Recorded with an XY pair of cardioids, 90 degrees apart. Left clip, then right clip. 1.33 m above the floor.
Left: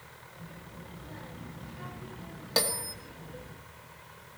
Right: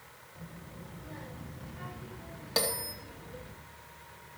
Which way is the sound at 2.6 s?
20° left.